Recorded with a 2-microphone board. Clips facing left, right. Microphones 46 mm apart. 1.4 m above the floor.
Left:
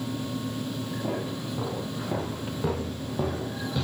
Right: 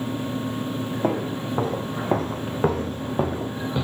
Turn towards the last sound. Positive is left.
turn(degrees=-25)  # may be behind; listen again after turning